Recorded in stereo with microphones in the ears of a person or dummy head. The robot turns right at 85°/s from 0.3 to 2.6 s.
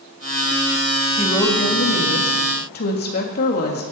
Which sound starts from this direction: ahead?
A woman speaking, at 1.2 s.